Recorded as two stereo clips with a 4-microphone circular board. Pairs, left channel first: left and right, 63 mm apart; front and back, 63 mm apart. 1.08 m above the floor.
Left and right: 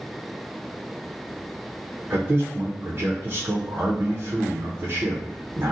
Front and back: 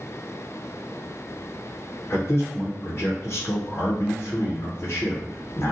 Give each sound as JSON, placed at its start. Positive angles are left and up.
{"t": 2.1, "sound": "a man speaking", "azimuth_deg": -50, "distance_m": 0.6}